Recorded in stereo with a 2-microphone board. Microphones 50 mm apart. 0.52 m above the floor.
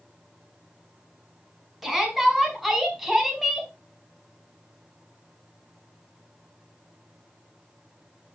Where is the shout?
5° right (ahead or behind), 5 m.